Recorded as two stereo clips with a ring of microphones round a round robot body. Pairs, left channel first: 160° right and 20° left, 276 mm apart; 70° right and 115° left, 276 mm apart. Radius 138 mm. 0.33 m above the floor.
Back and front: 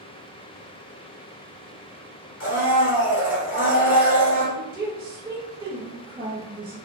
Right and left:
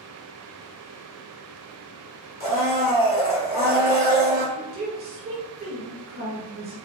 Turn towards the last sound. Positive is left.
turn(degrees=85)